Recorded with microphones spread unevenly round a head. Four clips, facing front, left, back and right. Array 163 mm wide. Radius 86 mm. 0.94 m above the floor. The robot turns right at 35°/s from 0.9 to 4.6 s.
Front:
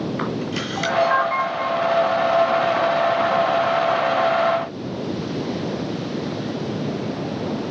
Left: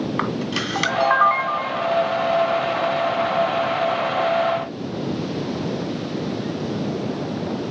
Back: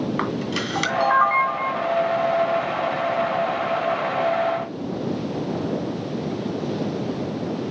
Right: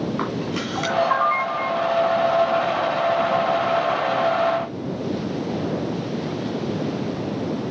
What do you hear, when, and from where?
0.2 s a camera shutter: 125° left, 2.5 m; by 1.9 s 160° left, 2.5 m